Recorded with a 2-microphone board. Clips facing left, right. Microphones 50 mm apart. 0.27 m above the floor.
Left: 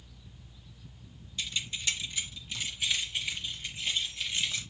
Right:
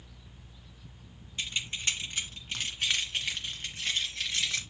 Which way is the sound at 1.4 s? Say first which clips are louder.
Right 1 dB; 35° right (ahead or behind).